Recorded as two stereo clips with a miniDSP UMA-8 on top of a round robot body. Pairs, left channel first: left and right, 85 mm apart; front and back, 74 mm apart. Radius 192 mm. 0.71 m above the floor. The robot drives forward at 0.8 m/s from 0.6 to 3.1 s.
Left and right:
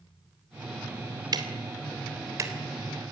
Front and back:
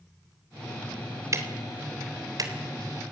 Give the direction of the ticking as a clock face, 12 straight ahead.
4 o'clock.